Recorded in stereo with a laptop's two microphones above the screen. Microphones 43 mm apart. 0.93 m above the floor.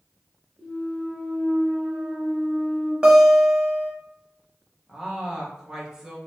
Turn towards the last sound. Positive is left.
turn(degrees=-15)  # may be behind; listen again after turning